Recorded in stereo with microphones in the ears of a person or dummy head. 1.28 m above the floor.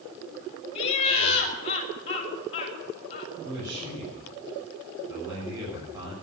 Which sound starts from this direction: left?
Laughter, at 0.8 s.